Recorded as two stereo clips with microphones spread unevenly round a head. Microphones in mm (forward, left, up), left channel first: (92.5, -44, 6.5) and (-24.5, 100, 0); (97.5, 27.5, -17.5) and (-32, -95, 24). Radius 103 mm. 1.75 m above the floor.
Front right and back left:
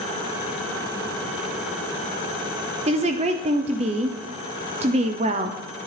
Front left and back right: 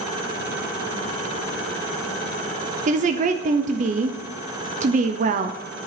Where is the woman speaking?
170° right, 0.5 m.